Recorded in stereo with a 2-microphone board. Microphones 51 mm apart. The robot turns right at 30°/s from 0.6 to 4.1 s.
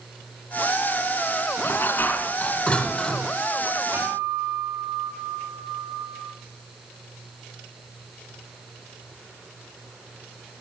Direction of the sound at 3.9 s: 50° right (ahead or behind).